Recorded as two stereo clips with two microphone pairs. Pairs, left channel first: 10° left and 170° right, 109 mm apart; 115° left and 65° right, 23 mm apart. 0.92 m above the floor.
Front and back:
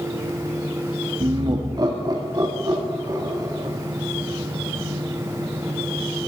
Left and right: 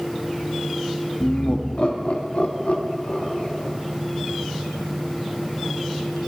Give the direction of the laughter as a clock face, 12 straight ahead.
7 o'clock.